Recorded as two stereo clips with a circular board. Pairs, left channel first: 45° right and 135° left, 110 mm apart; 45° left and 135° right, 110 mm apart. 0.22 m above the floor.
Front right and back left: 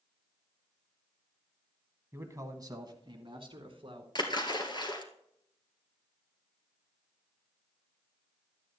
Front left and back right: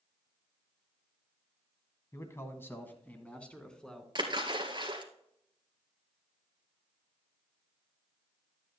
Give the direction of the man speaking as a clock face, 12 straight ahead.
9 o'clock.